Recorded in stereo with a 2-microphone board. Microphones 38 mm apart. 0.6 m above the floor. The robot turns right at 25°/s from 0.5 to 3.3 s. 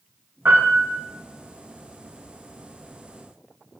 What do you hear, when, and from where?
0.5 s a piano: 65° right (ahead or behind), 4.5 m; by 0.9 s 50° right (ahead or behind), 4.5 m